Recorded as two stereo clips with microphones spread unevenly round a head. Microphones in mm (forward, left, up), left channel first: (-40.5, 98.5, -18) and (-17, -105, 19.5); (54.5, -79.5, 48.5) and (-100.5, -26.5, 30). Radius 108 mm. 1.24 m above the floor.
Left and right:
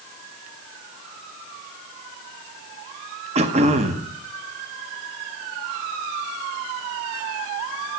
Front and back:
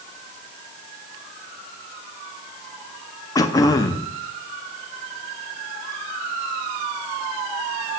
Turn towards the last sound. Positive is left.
turn(degrees=-65)